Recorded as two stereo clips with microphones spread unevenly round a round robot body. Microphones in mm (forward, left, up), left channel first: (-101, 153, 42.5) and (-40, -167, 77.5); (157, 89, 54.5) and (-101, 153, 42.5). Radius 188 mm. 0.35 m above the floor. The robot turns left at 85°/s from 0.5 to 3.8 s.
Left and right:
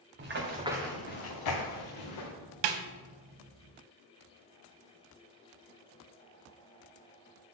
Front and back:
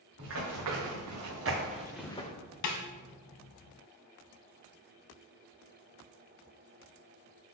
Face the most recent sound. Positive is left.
turn(degrees=-155)